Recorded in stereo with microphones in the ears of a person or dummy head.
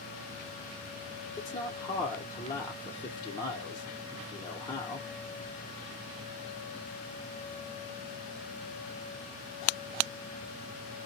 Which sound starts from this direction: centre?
A man speaking, at 1.4 s.